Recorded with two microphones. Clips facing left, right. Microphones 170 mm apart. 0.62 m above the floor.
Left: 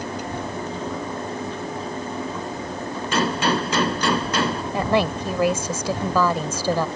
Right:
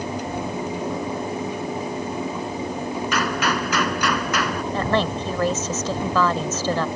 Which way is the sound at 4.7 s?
10° left (ahead or behind).